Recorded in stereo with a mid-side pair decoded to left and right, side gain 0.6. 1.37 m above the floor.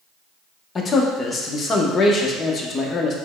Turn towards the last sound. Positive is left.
turn(degrees=35)